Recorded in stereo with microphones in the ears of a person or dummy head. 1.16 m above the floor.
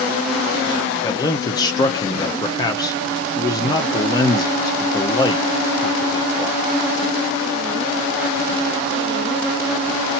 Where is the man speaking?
20° left (ahead or behind), 0.7 m.